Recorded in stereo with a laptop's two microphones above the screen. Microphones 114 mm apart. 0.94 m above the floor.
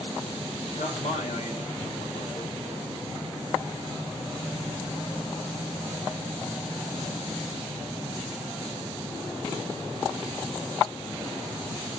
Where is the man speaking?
80° left, 3.5 m.